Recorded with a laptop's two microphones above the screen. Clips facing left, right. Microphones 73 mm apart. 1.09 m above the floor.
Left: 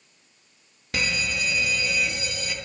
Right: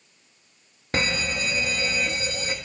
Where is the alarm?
40° right (ahead or behind), 1.0 m.